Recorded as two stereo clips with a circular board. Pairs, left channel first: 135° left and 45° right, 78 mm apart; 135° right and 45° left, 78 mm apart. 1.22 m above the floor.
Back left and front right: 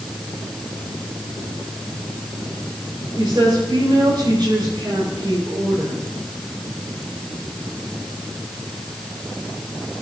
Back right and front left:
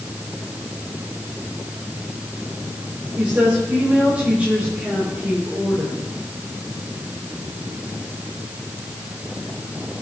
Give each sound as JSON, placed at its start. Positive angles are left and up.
{"t": 3.1, "sound": "a woman speaking", "azimuth_deg": -25, "distance_m": 4.5}